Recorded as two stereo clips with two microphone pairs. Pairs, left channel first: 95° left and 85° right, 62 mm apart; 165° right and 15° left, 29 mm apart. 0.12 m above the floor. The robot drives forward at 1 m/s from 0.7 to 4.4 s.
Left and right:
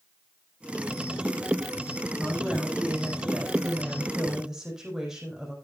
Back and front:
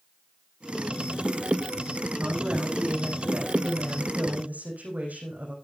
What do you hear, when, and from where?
2.2 s a woman speaking: straight ahead, 8.5 m; by 5.5 s 5° right, 6 m